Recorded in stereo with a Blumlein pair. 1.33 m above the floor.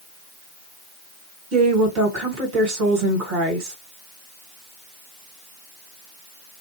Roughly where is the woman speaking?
Ahead right.